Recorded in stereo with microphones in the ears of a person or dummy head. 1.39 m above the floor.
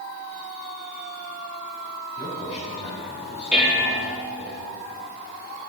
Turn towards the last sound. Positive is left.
turn(degrees=-5)  # may be behind; listen again after turning